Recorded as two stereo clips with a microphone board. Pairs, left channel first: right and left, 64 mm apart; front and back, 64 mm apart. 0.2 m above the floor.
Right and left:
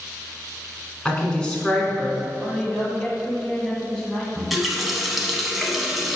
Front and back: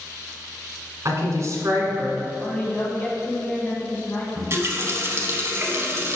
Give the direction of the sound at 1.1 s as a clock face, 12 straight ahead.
5 o'clock.